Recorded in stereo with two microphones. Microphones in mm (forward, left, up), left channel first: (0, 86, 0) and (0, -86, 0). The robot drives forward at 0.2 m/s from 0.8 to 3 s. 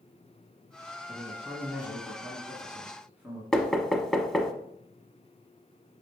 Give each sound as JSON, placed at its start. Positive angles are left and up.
{"t": 1.1, "sound": "a man speaking", "side_deg": -10, "distance_m": 1.4}
{"t": 3.5, "sound": "knocking", "side_deg": 5, "distance_m": 0.8}